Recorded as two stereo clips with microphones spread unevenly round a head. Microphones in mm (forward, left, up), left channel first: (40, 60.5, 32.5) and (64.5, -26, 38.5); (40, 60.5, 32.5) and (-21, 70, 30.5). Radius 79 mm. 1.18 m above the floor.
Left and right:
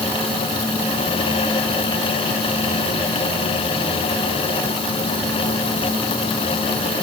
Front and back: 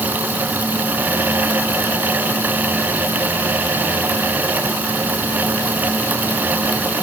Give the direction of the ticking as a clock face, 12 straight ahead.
I don't hear ticking.